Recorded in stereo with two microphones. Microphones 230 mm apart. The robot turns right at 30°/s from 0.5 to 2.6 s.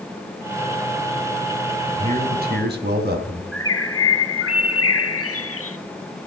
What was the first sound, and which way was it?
A man speaking, 30° right (ahead or behind).